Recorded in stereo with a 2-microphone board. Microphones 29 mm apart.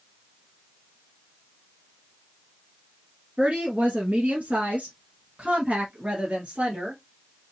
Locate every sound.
3.4 s a woman speaking: 45° right (ahead or behind), 1.5 m; by 7.0 s 30° right (ahead or behind), 2 m